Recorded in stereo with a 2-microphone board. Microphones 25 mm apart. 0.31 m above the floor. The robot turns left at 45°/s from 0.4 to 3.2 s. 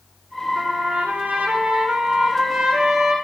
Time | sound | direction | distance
0.6 | a trumpet | 65° right | 7 m